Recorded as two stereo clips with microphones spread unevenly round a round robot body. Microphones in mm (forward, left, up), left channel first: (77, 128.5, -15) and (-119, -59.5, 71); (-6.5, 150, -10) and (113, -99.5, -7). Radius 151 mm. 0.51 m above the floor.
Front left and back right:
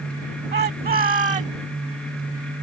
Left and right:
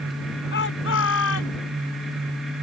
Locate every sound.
0.5 s a shout: 170° left; by 1.6 s 155° left